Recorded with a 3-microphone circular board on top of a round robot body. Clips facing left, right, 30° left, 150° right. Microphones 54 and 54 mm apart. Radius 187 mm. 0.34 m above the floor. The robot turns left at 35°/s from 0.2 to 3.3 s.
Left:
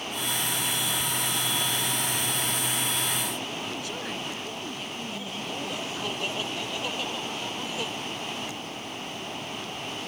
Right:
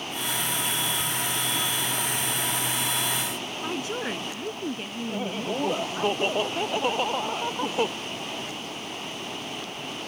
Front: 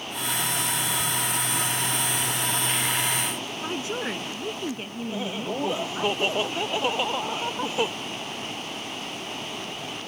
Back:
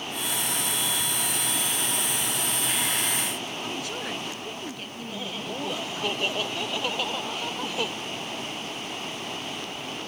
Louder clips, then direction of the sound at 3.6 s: Right 4 dB, front 6 dB; 30° right.